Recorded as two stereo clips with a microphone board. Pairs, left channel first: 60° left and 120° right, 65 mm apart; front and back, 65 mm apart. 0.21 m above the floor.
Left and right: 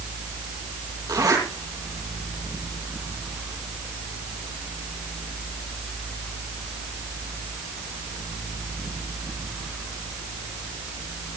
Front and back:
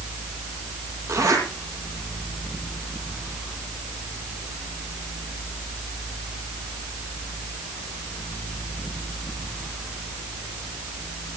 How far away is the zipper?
About 7.5 m.